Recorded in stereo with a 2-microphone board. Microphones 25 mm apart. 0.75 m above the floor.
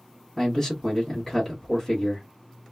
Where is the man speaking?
15° left (ahead or behind), 1.1 m.